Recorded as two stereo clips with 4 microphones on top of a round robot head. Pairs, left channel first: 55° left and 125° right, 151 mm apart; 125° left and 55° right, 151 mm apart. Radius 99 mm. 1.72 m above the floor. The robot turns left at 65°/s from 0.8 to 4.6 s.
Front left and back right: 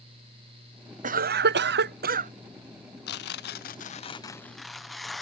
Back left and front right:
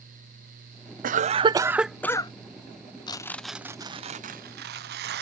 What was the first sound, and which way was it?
A cough, 90° right.